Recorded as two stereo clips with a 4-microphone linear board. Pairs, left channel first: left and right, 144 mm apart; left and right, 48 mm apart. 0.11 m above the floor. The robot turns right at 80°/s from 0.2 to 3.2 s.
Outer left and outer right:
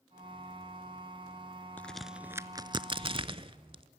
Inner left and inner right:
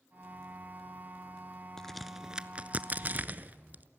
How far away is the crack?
About 0.5 m.